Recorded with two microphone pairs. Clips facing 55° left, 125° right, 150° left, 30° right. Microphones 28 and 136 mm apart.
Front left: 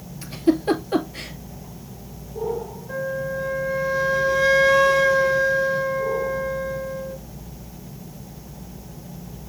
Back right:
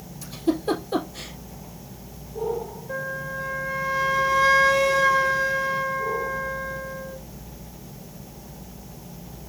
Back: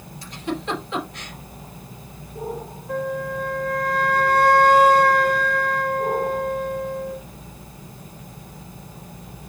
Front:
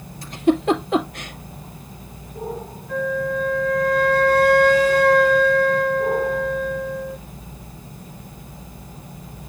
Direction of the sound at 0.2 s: 10° left.